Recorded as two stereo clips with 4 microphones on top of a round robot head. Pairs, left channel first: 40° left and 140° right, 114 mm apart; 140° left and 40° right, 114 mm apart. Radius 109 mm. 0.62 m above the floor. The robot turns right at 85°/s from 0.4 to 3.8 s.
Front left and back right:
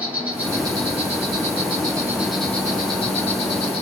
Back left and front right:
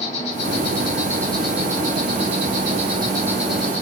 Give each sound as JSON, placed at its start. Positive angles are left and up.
{"t": 0.0, "sound": "an insect", "azimuth_deg": 145, "distance_m": 2.0}